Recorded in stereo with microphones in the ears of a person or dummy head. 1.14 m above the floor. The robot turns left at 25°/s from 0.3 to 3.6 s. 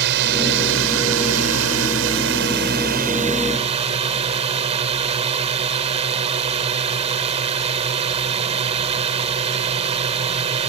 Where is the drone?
65° right; by 10.7 s 150° right.